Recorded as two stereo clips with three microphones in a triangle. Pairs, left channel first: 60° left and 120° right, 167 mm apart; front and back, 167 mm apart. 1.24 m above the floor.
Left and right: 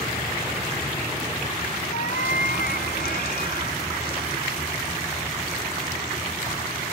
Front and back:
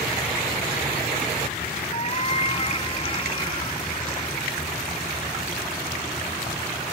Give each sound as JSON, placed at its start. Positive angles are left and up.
{"t": 1.9, "sound": "a cat meowing", "azimuth_deg": 40}